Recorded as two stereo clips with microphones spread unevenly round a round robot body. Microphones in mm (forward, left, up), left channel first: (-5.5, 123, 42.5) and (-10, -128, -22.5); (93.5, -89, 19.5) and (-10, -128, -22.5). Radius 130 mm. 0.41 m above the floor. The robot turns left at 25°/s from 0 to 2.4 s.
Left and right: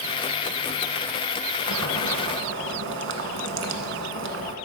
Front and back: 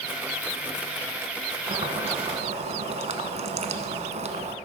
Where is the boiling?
115° right, 1.0 m; by 4.5 s 135° right, 1.0 m.